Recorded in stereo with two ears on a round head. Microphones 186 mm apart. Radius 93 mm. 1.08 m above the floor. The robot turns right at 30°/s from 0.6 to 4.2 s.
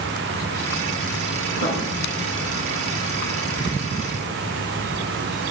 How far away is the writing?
About 7.5 m.